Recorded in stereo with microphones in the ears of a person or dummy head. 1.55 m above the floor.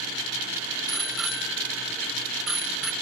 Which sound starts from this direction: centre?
A bicycle bell, at 0.9 s.